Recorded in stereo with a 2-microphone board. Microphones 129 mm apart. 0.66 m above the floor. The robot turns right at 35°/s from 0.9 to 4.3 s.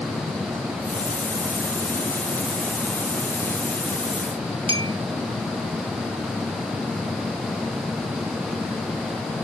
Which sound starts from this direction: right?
A clink, at 4.7 s.